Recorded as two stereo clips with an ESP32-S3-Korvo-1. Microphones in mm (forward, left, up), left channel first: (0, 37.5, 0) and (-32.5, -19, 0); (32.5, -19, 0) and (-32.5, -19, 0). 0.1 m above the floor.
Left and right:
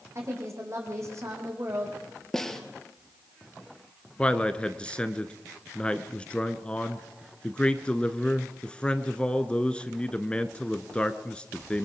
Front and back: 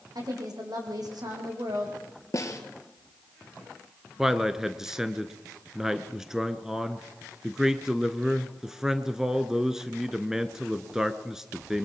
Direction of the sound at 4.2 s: 110° left.